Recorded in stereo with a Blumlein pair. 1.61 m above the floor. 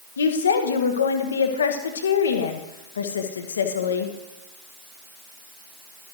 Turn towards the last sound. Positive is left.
turn(degrees=65)